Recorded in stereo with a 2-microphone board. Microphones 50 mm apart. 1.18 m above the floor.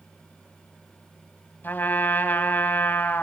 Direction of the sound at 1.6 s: 40° left (ahead or behind).